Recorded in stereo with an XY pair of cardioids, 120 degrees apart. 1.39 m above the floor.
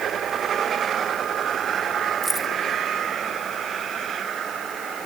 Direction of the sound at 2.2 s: 10° right.